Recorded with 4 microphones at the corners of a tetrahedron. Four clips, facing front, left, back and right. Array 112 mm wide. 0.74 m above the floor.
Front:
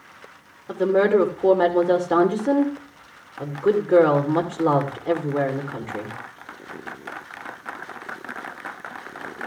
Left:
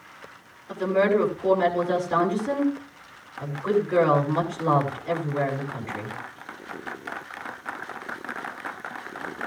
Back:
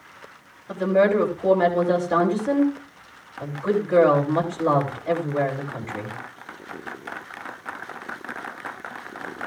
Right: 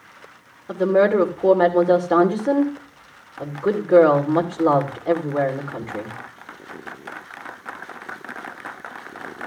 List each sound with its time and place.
0.7 s a woman speaking: 50° right, 2.5 m